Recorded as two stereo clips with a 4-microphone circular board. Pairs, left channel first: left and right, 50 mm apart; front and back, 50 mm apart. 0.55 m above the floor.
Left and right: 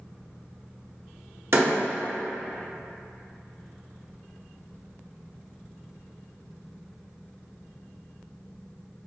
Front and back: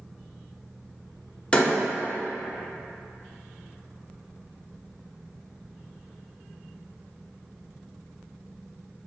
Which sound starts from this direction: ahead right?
A door slam, at 1.5 s.